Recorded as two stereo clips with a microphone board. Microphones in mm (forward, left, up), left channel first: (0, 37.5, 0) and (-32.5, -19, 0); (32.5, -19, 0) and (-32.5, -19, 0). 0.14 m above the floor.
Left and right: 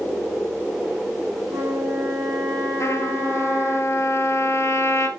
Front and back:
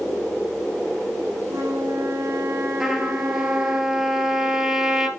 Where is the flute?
145° right, 4.5 m.